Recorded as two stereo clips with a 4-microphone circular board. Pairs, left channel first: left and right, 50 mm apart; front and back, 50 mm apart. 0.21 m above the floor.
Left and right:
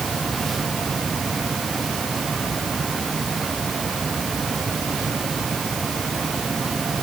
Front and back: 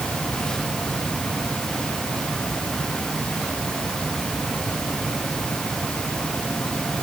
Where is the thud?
No thud in this recording.